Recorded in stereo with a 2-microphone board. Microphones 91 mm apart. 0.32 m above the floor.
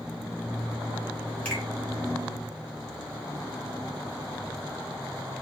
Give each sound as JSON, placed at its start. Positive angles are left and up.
{"t": 1.4, "sound": "a finger snap", "side_deg": 15, "distance_m": 2.5}